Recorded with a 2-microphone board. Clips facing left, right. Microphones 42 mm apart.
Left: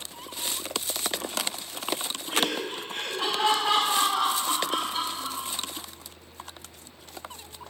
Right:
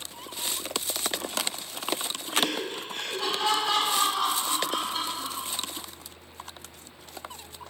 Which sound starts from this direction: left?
Laughter, at 2.3 s.